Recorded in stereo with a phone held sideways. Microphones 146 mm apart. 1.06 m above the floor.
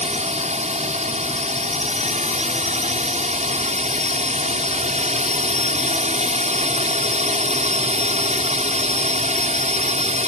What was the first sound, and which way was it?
A drone, 55° right (ahead or behind).